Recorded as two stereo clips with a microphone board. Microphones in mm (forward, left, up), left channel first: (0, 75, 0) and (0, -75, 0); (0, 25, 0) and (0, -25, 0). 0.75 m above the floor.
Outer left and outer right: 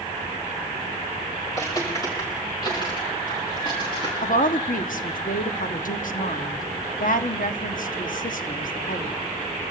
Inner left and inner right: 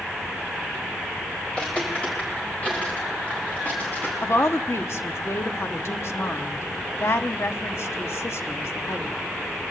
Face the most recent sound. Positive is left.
turn(degrees=65)  # may be behind; listen again after turning